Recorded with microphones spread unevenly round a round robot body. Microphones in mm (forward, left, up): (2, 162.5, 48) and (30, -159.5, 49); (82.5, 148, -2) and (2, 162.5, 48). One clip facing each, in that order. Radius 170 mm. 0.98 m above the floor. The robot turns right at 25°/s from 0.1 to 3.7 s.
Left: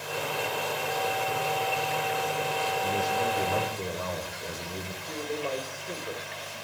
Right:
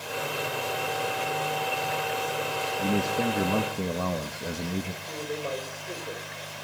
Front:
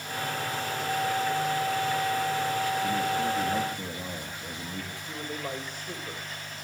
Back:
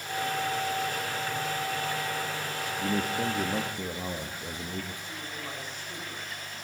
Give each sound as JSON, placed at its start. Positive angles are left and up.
{"t": 2.8, "sound": "a man speaking", "azimuth_deg": -120, "distance_m": 1.5}
{"t": 5.0, "sound": "a man speaking", "azimuth_deg": 5, "distance_m": 3.5}